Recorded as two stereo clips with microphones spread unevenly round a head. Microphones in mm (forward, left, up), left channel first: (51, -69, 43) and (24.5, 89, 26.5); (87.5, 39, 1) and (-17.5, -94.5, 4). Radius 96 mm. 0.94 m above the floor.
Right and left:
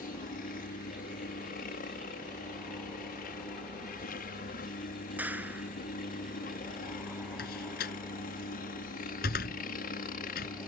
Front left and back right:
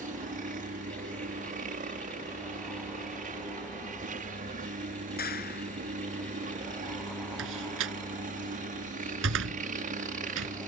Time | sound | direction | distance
0.0 | a helicopter | 100° right | ?
5.2 | a clap | 20° left | ?
7.4 | a door slam | 125° right | ?